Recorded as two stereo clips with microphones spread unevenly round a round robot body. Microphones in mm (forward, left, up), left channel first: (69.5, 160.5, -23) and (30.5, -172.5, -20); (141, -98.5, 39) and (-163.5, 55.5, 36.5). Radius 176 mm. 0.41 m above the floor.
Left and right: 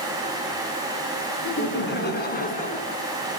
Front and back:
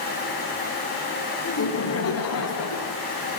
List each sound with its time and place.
1.4 s laughter: 30° left, 4.5 m; by 3.0 s 10° left, 4.5 m